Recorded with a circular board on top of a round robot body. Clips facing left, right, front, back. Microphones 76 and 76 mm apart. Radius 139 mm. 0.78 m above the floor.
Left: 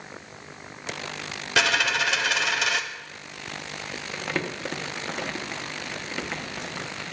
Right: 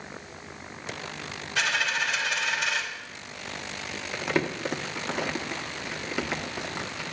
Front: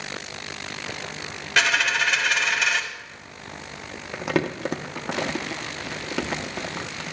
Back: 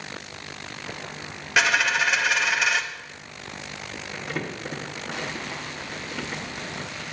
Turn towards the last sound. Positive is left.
turn(degrees=-10)